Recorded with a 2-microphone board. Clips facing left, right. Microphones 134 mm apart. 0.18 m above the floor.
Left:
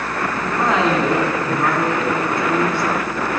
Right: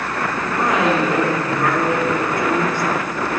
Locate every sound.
0.4 s a woman speaking: 30° left (ahead or behind), 1.7 m